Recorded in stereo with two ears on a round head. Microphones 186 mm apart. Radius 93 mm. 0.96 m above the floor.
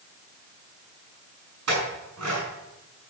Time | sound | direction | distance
1.7 | a clink | 90° right | 5.5 m